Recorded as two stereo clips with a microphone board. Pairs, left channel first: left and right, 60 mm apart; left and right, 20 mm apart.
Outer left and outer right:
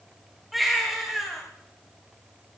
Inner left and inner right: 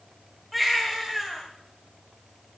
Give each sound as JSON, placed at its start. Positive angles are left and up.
{"t": 0.5, "sound": "a baby crying", "side_deg": 0, "distance_m": 6.0}